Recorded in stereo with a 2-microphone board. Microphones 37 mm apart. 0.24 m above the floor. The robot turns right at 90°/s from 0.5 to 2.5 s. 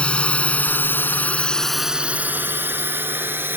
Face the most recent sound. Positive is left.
turn(degrees=-70)  # may be behind; listen again after turning